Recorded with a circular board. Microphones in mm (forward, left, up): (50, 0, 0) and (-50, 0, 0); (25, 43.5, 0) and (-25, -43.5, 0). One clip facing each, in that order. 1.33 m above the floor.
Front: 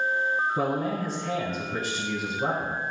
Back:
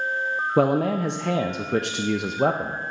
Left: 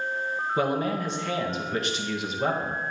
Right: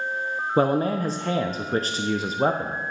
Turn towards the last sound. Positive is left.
turn(degrees=-170)